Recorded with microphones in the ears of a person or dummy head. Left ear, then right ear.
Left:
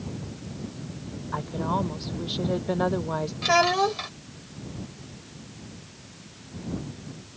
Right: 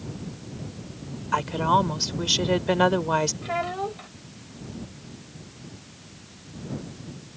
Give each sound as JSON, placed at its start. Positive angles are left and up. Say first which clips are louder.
{"t": 1.3, "sound": "a woman speaking", "louder": "right 7 dB", "side_deg": -70}
{"t": 3.4, "sound": "a child speaking", "louder": "left 8 dB", "side_deg": 80}